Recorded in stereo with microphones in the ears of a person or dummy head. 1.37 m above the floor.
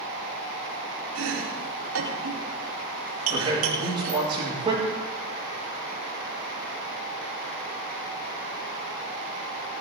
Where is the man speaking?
25° right (ahead or behind), 9.5 m.